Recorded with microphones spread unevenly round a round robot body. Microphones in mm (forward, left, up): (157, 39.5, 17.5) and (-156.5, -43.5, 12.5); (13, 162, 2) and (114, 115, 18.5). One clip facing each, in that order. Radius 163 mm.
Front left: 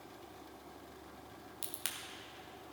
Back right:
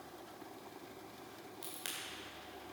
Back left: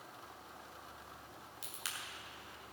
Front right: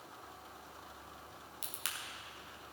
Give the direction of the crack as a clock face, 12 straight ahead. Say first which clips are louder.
Back right 1 dB, front right 2 dB; 1 o'clock.